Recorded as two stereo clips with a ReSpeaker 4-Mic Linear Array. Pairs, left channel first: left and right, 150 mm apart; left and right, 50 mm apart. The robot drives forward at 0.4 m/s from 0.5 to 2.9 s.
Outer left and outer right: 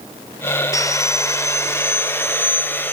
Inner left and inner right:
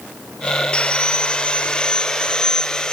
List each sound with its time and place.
0.7 s sawing: 20° left (ahead or behind), 1.0 m; by 2.9 s 15° left (ahead or behind), 1.6 m